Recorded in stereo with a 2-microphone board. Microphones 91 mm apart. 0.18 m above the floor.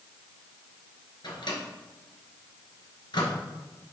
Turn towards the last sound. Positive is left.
turn(degrees=65)  # may be behind; listen again after turning